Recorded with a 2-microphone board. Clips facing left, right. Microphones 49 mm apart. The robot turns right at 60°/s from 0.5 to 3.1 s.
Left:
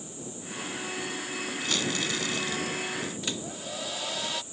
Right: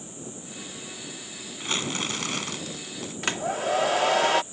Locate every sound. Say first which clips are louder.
1.6 s crumpling: right 2 dB; 150° right; by 3.1 s 60° right
3.2 s a hair dryer: right 9 dB; 65° right (ahead or behind)